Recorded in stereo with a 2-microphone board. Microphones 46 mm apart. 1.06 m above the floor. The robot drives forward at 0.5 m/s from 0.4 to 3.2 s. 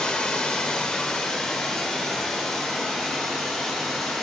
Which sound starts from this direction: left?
Running water, at 0.0 s.